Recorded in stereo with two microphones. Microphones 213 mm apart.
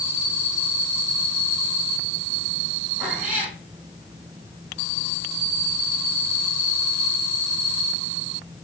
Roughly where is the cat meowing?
Centre.